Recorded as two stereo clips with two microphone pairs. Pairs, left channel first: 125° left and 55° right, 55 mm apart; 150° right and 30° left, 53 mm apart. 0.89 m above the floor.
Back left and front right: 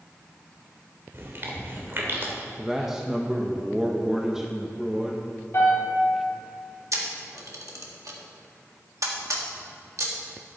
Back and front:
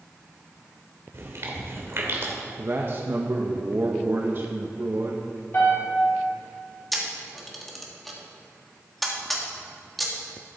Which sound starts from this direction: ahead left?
A man speaking, at 2.6 s.